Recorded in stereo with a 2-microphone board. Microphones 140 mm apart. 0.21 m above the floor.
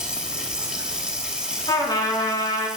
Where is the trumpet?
30° left (ahead or behind), 1.7 m.